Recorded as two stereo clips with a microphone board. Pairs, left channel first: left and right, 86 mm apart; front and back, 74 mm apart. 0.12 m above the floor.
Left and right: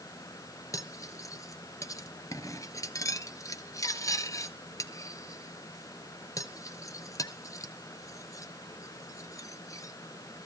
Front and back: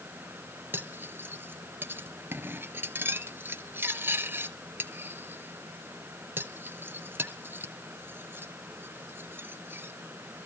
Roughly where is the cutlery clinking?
Behind left.